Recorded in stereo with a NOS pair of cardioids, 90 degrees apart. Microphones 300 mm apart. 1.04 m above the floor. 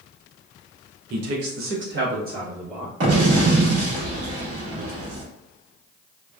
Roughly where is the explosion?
Ahead right.